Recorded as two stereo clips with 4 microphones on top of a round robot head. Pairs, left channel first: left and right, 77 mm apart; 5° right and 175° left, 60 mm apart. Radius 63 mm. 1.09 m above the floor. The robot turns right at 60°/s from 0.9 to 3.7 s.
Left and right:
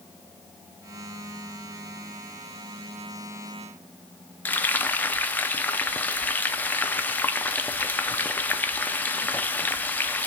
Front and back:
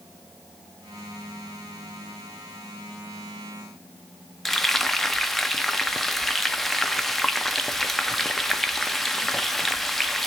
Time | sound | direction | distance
4.5 | frying | 75° left | 0.7 m